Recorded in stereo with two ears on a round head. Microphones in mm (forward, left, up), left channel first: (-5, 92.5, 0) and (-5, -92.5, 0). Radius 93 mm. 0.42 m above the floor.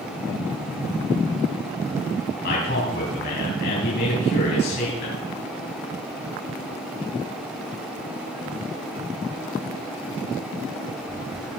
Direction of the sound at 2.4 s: 50° left (ahead or behind).